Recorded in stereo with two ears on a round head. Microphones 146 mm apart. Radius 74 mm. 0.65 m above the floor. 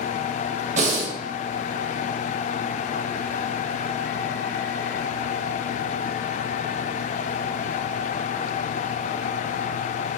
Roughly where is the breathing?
Right.